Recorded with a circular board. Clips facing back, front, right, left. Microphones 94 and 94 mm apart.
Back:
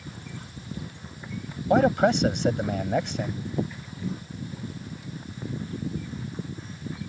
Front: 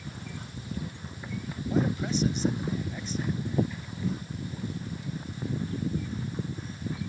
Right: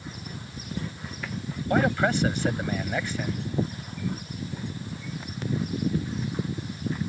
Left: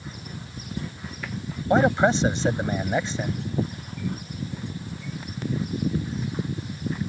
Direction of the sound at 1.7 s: 160° left.